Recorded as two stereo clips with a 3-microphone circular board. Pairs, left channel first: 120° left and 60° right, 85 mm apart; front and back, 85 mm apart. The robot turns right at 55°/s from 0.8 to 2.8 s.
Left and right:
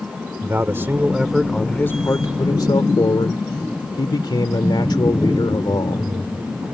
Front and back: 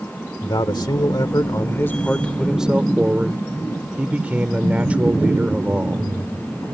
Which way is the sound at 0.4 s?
Straight ahead.